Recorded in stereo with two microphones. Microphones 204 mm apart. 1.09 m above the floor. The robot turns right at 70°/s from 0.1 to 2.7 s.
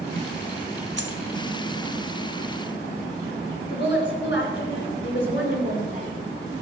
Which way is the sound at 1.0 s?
60° right (ahead or behind).